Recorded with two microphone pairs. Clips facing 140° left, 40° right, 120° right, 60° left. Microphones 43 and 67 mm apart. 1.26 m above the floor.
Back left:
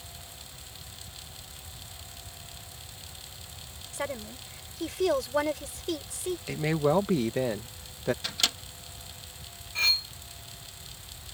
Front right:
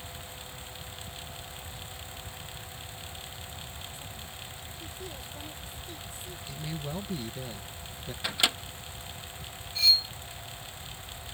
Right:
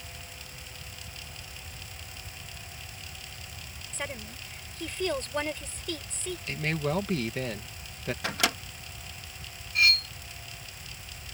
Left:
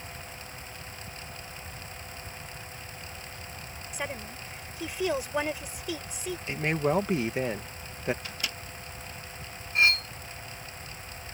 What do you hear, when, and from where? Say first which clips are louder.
3.9 s a woman speaking: back left 9 dB, left 2 dB; 140° left
6.5 s a man speaking: back left 13 dB, left 4 dB; 130° left
8.2 s a microwave: front right 3 dB, right 8 dB; 110° right
9.8 s cutlery clinking: front right 1 dB, left 1 dB; 115° left